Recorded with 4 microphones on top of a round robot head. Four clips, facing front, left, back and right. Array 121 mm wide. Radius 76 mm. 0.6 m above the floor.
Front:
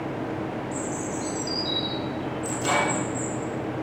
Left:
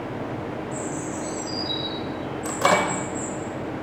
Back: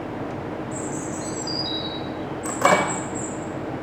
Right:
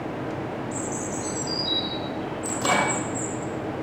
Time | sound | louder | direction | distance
0.7 | a bird | even, back 1 dB | 125° right | 3 m
2.5 | a microwave | left 3 dB, back 6 dB | 155° left | 1.8 m